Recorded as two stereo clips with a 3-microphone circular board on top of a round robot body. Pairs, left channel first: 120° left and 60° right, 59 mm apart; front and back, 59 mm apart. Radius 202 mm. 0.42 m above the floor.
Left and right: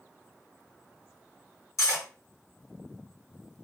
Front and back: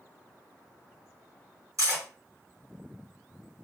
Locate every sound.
1.8 s cutlery clinking: 150° left, 1.7 m